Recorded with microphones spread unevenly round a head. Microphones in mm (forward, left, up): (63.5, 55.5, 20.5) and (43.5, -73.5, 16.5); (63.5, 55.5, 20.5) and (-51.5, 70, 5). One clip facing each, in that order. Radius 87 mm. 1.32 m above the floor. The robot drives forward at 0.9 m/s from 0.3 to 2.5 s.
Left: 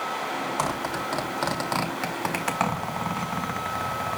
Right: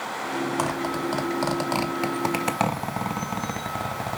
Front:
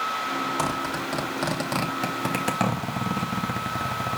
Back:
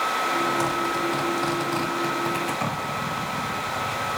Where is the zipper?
20° right, 3.5 m; by 4.2 s 35° right, 1.7 m.